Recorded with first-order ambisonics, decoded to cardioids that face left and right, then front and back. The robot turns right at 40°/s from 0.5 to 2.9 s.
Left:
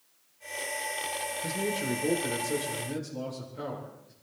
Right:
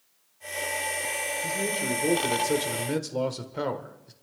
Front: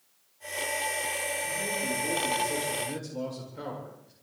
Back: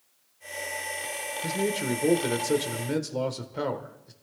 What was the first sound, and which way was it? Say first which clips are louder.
A man speaking: right 1 dB, back 2 dB; 170° left.